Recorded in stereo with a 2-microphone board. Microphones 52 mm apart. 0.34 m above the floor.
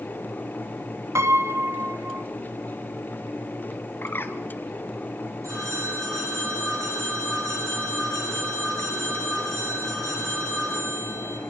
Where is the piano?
70° right (ahead or behind), 1.3 m.